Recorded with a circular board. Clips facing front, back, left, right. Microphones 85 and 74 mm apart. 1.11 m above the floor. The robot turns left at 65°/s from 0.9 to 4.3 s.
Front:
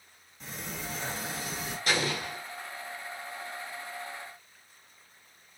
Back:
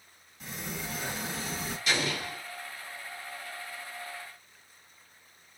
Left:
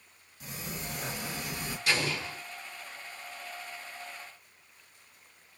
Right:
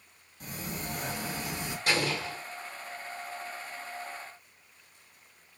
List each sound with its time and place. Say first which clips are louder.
0.4 s a sliding door: back 1 dB, right 2 dB; 95° right, 1.2 m; by 1.8 s 150° right, 1.2 m
1.9 s an explosion: front 2 dB, right 2 dB; 45° right, 1.1 m; by 2.4 s 80° right, 1.1 m